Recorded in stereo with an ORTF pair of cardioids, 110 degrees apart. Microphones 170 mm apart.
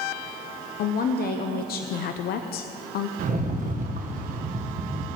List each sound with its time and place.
0.8 s a woman speaking: 70° left, 0.8 m
3.2 s a rattle: 55° right, 1.5 m